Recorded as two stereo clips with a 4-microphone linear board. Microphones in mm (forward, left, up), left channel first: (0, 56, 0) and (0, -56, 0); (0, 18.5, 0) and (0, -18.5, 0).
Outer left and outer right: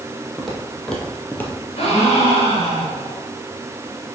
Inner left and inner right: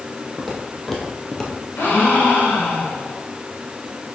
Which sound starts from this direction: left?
A gasp, at 1.8 s.